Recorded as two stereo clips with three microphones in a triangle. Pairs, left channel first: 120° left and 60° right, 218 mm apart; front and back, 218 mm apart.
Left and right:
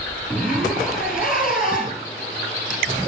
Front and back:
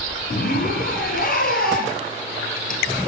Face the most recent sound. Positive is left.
turn(degrees=30)